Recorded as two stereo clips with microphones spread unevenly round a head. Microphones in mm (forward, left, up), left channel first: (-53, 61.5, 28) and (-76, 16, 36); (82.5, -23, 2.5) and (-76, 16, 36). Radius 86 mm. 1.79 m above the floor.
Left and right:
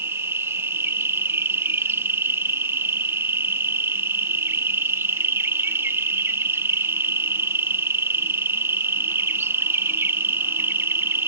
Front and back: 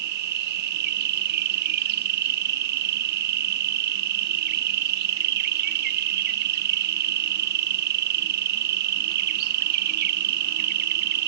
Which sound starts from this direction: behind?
An insect, at 0.0 s.